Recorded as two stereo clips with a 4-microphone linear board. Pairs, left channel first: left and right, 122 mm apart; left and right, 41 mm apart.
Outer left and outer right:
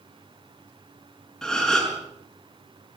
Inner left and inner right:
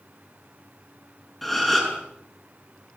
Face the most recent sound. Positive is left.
turn(degrees=5)  # may be behind; listen again after turning